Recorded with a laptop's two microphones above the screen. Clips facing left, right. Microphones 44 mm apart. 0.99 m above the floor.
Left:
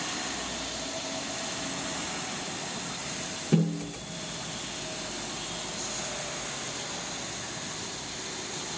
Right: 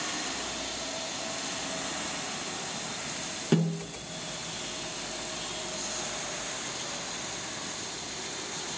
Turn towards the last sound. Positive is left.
turn(degrees=-55)  # may be behind; listen again after turning